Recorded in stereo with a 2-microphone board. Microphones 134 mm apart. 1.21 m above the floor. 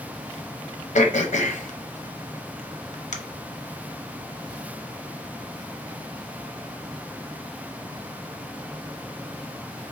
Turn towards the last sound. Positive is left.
turn(degrees=60)  # may be behind; listen again after turning